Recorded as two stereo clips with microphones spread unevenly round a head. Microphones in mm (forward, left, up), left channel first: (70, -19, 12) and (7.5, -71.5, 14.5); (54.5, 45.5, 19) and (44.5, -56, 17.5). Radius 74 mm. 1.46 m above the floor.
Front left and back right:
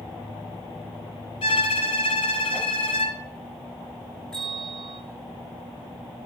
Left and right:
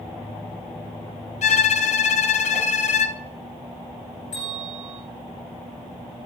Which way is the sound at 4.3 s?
125° left.